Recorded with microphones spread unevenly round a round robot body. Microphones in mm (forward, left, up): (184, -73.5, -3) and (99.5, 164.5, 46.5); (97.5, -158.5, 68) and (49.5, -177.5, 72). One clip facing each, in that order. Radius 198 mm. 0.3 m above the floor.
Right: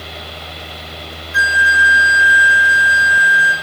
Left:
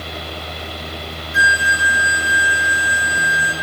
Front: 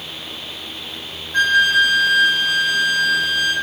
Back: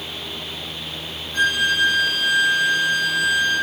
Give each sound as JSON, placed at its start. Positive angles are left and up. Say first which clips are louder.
{"t": 1.3, "sound": "a flute", "louder": "right 2 dB, front 5 dB", "azimuth_deg": 55, "distance_m": 2.5}